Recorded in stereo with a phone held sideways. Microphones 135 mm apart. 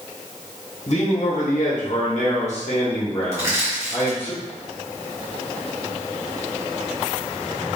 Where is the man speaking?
55° left (ahead or behind), 1.3 m; by 4.3 s 25° left (ahead or behind), 1.6 m.